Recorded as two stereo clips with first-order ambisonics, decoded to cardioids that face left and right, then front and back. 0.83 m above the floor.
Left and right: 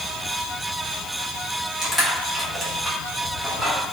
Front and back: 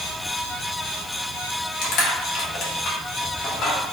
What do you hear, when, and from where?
1.8 s crushing: straight ahead, 1.3 m